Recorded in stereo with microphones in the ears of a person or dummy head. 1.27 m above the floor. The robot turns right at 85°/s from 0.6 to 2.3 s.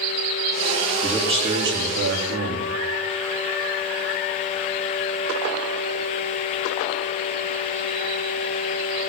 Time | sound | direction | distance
1.0 | a man speaking | straight behind | 2.5 m